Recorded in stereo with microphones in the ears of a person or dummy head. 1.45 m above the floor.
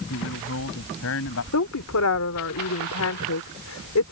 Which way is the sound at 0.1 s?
70° left (ahead or behind).